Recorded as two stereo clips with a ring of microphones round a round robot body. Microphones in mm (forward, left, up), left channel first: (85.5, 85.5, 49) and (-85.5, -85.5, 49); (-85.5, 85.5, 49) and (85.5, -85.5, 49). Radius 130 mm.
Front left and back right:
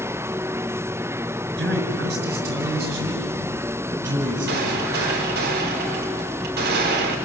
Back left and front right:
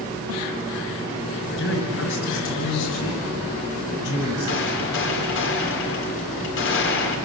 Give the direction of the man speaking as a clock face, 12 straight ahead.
6 o'clock.